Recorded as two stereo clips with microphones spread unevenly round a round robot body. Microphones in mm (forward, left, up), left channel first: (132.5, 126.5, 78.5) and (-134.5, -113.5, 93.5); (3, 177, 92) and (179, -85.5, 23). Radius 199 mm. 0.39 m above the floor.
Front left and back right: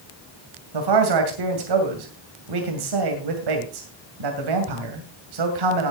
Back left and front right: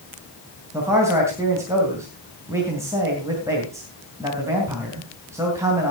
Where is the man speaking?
135° right, 2.5 m.